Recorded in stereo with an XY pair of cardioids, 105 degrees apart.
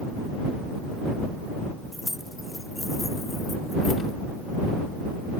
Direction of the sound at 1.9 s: 5° left.